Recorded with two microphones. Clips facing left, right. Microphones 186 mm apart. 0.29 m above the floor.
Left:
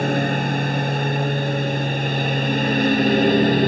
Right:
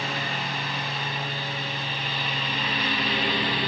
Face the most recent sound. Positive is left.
turn(degrees=45)  # may be behind; listen again after turning